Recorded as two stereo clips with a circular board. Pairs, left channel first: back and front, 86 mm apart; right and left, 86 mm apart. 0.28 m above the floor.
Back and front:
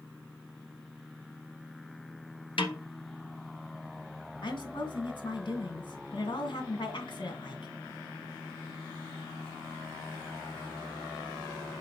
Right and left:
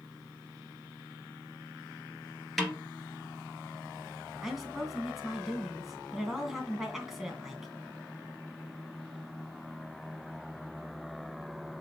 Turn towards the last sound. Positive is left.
turn(degrees=175)